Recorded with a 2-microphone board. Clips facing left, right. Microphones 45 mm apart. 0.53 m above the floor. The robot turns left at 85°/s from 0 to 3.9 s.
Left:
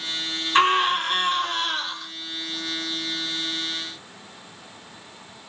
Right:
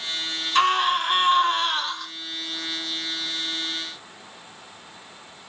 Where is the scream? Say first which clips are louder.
Left 1 dB; 35° left, 2.5 m; by 2.1 s 100° right, 2.5 m.